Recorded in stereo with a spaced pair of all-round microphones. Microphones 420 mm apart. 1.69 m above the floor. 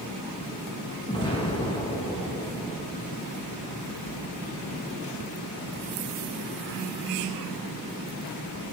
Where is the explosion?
10° left (ahead or behind), 1.7 m.